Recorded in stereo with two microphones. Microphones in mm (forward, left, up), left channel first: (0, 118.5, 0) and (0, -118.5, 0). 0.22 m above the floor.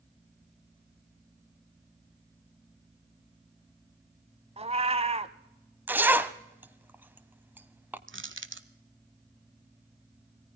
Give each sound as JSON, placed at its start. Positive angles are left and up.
{"t": 4.6, "sound": "a cat meowing", "side_deg": -25, "distance_m": 0.9}
{"t": 5.9, "sound": "a zipper", "side_deg": -10, "distance_m": 0.9}
{"t": 8.1, "sound": "crushing", "side_deg": -55, "distance_m": 1.0}